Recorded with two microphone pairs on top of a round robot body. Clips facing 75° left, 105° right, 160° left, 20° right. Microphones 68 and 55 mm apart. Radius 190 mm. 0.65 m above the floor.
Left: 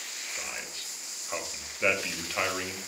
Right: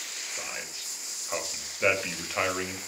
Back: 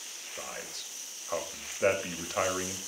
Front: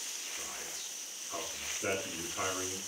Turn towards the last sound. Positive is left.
turn(degrees=175)